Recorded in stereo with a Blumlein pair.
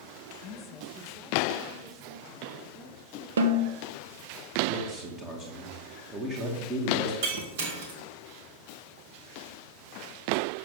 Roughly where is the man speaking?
Ahead.